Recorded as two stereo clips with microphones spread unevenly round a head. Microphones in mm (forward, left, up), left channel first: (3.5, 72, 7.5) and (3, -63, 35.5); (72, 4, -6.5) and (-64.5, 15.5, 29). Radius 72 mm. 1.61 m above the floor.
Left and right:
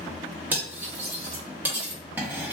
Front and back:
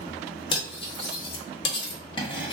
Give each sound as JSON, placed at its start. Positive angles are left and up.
{"t": 0.5, "sound": "cutlery clinking", "azimuth_deg": -55, "distance_m": 0.8}